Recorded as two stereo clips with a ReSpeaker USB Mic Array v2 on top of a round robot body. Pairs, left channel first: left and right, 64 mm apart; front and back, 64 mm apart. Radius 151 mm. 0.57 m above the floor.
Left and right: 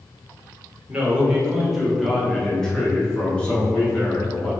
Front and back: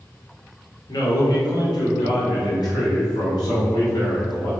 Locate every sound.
0.9 s a man speaking: 20° right, 2.5 m; by 4.5 s 25° left, 4.5 m